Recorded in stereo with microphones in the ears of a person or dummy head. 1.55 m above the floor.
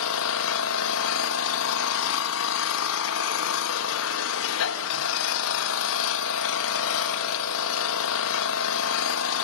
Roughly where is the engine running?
Left.